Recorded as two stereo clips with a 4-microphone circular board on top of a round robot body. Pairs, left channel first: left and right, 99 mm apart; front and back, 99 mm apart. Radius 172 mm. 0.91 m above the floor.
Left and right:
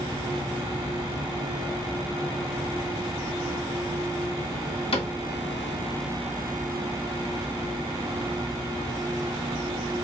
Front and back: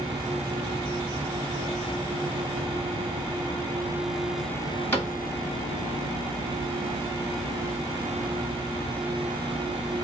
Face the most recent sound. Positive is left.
turn(degrees=70)